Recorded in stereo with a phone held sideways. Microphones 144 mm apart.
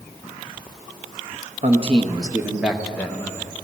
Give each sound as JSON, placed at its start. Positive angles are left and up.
{"t": 1.6, "sound": "a man speaking", "side_deg": -50, "distance_m": 1.2}